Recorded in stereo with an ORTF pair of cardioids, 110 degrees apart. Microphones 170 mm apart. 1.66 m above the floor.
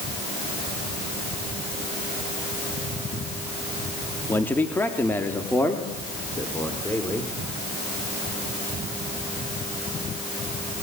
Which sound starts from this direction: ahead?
A man speaking, at 4.3 s.